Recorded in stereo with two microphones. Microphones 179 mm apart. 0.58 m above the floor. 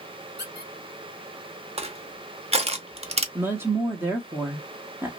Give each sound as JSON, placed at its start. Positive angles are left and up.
{"t": 0.4, "sound": "a squeak", "side_deg": 70, "distance_m": 1.2}
{"t": 1.8, "sound": "crushing", "side_deg": -35, "distance_m": 0.6}
{"t": 3.4, "sound": "a woman speaking", "side_deg": -15, "distance_m": 0.7}